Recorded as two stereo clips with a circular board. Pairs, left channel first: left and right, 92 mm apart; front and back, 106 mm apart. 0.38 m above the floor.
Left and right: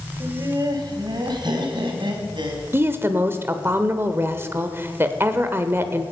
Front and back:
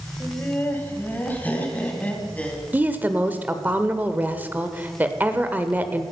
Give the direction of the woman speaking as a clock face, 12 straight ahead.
4 o'clock.